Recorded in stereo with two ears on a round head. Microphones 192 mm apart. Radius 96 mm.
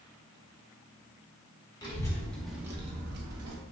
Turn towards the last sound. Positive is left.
turn(degrees=-80)